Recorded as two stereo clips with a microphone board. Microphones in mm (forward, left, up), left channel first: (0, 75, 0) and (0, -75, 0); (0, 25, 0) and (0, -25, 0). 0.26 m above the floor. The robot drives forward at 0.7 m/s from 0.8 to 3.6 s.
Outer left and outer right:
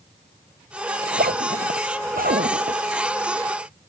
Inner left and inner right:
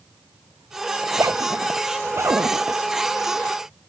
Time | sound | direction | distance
1.0 | a zipper | 80° right | ?